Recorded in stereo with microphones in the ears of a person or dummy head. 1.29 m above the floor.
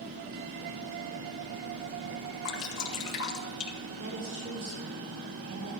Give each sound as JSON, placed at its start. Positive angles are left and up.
{"t": 2.5, "sound": "dripping", "side_deg": 75, "distance_m": 1.8}
{"t": 4.0, "sound": "a woman speaking", "side_deg": -45, "distance_m": 5.5}